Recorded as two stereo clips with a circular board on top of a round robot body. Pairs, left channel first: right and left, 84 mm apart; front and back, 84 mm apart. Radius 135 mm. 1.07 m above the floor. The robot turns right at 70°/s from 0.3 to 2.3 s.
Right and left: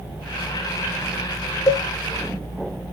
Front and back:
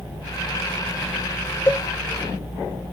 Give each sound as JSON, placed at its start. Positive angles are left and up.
{"t": 1.7, "sound": "a cowbell", "azimuth_deg": -60, "distance_m": 1.3}